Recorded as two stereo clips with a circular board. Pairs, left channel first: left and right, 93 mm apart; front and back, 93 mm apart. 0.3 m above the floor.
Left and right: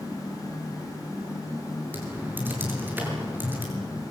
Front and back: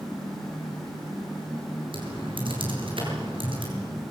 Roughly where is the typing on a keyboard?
Behind.